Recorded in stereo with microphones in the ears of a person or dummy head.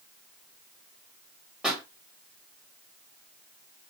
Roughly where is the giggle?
I don't hear a giggle.